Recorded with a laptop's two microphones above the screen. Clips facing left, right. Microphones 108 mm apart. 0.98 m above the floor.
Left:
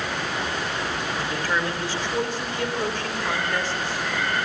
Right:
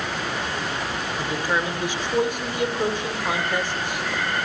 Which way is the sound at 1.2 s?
15° right (ahead or behind).